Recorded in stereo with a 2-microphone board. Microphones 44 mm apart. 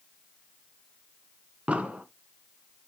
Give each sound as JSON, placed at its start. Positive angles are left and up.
{"t": 1.7, "sound": "an explosion", "side_deg": -30, "distance_m": 0.9}